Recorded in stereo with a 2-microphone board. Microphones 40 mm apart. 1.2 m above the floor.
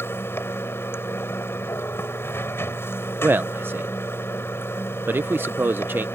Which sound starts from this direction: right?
A man speaking, at 3.2 s.